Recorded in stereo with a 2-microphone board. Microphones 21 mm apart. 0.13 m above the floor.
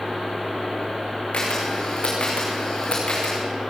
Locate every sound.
1.3 s a camera shutter: 55° left (ahead or behind), 6.5 m